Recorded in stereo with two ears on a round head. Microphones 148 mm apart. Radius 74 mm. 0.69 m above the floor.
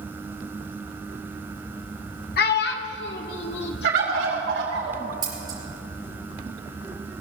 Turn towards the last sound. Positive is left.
turn(degrees=-25)  # may be behind; listen again after turning